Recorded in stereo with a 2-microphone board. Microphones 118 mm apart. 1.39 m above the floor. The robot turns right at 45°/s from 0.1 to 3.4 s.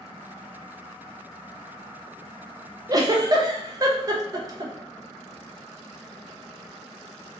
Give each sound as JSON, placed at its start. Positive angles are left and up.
{"t": 2.9, "sound": "a giggle", "side_deg": -30, "distance_m": 0.6}